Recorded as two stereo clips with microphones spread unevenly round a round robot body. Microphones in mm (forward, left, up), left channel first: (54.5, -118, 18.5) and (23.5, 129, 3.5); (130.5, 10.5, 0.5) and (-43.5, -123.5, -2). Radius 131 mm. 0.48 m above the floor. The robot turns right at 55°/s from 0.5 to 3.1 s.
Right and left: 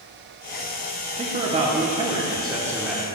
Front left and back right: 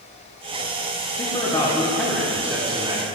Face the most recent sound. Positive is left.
turn(degrees=-175)